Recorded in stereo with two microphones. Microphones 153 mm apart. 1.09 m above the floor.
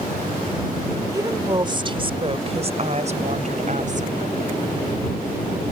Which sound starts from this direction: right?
A woman speaking, at 1.1 s.